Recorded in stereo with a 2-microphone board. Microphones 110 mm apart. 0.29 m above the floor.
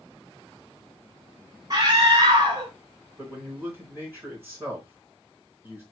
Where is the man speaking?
20° right (ahead or behind), 3.5 m.